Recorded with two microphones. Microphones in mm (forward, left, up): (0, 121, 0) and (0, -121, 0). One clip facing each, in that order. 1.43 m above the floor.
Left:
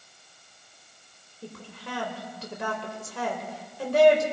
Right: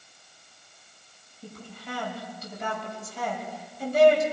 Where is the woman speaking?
80° left, 5 m.